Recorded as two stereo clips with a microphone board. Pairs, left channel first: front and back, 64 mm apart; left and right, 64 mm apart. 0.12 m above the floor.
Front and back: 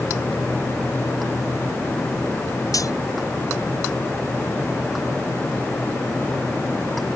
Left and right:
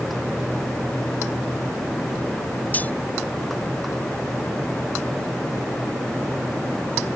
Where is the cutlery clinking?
30° left.